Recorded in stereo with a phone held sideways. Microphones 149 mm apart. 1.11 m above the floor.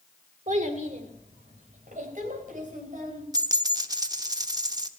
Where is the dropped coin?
25° right (ahead or behind), 0.7 m.